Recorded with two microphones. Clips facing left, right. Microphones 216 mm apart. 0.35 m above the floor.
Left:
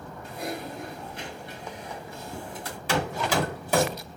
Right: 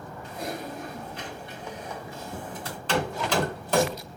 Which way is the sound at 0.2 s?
30° right (ahead or behind).